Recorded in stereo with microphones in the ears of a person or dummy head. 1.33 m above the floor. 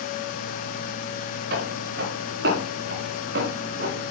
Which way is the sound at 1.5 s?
65° right (ahead or behind).